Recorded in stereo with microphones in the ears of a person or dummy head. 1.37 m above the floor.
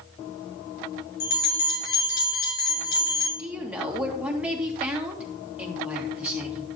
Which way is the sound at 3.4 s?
5° right (ahead or behind).